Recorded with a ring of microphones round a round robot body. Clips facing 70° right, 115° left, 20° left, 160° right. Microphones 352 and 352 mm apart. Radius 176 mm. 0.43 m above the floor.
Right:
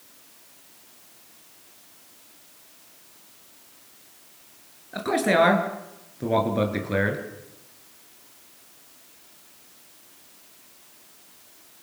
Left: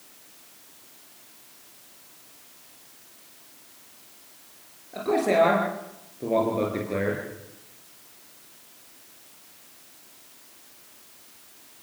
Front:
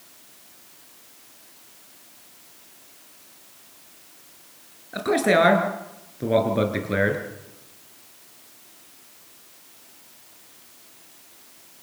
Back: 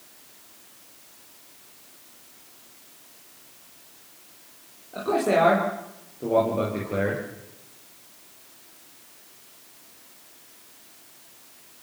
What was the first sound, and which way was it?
A man speaking, 20° right.